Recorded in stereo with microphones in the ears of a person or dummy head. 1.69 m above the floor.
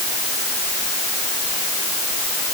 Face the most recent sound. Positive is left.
No sound to turn to.